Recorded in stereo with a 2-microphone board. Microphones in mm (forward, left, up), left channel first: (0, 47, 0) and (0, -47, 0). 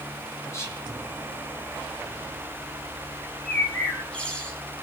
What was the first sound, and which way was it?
Whispering, 35° left (ahead or behind).